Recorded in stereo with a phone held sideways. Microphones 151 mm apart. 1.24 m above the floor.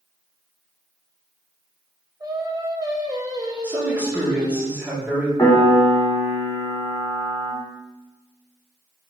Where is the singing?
25° right (ahead or behind), 1.0 m.